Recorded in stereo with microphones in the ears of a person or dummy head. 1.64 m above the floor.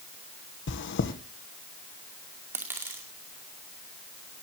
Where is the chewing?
60° left (ahead or behind), 1.3 m.